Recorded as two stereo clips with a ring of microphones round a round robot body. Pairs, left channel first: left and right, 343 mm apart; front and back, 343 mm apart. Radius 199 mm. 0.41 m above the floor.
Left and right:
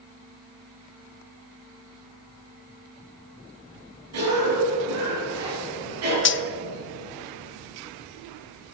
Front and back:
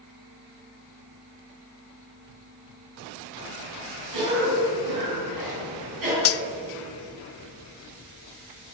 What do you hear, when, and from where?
4.1 s a cough: 140° right, 6.5 m
6.2 s cutlery clinking: 40° left, 0.6 m